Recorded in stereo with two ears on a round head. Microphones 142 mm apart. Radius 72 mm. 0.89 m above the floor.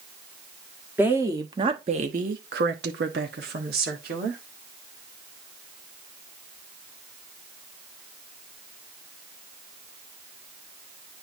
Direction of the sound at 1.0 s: 15° right (ahead or behind).